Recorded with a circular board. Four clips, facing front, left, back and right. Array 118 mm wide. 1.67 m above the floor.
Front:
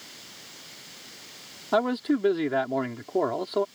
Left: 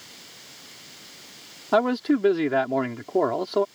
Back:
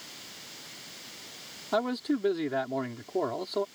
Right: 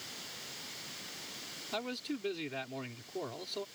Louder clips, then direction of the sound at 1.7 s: Left 18 dB, front 4 dB; 75° left.